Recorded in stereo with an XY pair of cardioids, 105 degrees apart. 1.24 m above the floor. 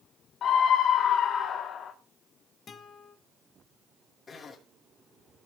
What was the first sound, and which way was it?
A scream, 60° left.